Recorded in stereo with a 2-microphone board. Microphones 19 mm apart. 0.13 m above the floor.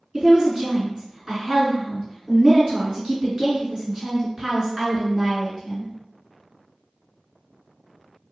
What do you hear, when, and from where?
0.1 s a woman speaking: 30° right (ahead or behind), 1.9 m